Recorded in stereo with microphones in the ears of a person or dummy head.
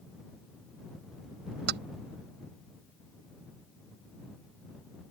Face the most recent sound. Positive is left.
turn(degrees=-65)  # may be behind; listen again after turning